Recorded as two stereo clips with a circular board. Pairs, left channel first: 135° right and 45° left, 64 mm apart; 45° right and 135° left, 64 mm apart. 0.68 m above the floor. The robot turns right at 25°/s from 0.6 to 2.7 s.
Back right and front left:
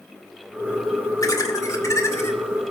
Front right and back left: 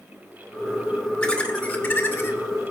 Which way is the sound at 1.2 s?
120° right.